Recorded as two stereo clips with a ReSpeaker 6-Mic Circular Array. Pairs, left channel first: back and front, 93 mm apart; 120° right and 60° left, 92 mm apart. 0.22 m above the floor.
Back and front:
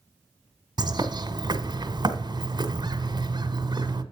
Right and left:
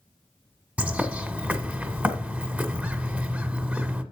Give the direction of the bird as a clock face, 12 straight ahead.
12 o'clock.